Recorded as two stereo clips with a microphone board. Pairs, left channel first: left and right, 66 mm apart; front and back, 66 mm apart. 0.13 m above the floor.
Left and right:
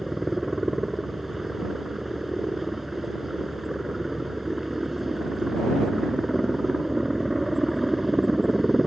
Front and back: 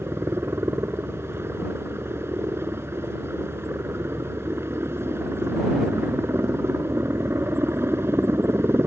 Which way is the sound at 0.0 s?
175° right.